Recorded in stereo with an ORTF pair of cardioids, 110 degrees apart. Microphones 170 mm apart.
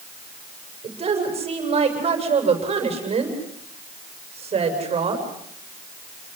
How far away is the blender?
I don't hear a blender.